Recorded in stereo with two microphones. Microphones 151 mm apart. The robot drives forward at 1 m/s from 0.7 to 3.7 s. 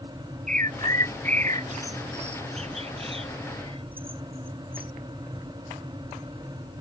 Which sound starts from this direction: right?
A bird, at 0.5 s.